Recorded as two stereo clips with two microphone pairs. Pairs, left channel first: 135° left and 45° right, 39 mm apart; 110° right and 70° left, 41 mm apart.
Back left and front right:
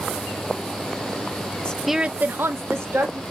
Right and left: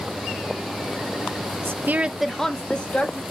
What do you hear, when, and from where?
1.6 s a woman speaking: 60° left, 0.6 m; by 3.2 s 50° right, 1.5 m